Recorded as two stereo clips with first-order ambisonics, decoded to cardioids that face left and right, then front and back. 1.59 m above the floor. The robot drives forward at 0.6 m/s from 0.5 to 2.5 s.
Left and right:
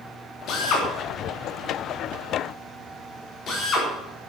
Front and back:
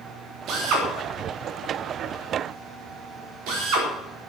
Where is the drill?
135° left, 3 m; by 3.9 s 145° left, 4 m.